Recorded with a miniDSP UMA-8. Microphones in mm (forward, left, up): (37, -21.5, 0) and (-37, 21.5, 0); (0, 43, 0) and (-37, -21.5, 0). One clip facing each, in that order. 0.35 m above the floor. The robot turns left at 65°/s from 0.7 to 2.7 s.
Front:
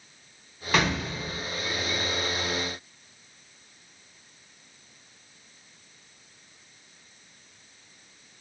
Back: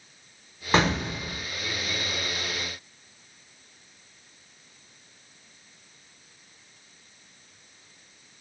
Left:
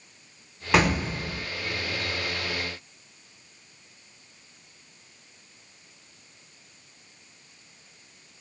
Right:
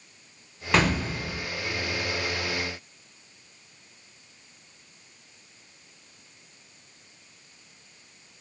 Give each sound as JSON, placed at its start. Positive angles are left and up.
{"t": 0.7, "sound": "an explosion", "azimuth_deg": 135, "distance_m": 0.8}